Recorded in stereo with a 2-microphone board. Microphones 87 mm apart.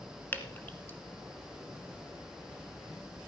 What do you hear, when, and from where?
0.3 s dripping: 25° left (ahead or behind), 1.1 m